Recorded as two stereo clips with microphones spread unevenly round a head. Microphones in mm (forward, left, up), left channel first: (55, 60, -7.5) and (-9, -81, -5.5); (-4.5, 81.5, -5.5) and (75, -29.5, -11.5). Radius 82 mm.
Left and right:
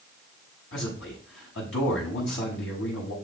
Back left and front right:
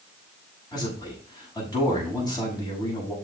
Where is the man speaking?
65° left, 6 m.